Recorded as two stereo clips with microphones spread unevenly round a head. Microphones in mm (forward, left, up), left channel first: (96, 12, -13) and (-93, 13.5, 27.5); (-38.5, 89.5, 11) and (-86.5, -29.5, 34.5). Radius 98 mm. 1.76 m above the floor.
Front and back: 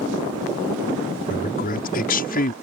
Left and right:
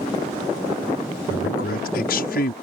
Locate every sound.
1.3 s a man speaking: 45° left